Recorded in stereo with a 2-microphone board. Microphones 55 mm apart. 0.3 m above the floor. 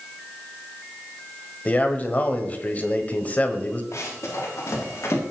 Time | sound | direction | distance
1.6 | a man speaking | 30° left (ahead or behind) | 1.4 m
3.9 | running footsteps | 60° left (ahead or behind) | 6 m